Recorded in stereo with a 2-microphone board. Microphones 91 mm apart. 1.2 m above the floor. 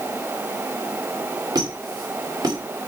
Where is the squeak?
45° right (ahead or behind), 2 m.